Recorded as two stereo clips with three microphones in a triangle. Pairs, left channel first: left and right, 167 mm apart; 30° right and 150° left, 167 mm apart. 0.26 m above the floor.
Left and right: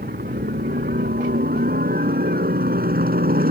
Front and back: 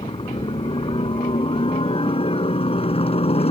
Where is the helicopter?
85° right; by 3.5 s 80° right.